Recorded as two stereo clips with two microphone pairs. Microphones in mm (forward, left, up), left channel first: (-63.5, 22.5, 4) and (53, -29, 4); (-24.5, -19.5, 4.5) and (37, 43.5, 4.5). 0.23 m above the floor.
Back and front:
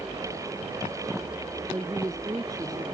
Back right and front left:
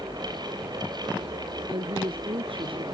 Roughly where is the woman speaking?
Ahead left.